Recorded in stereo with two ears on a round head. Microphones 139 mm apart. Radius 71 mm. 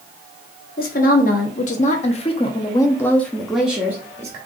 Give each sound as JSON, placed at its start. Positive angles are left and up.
{"t": 0.8, "sound": "a woman speaking", "side_deg": 60, "distance_m": 1.3}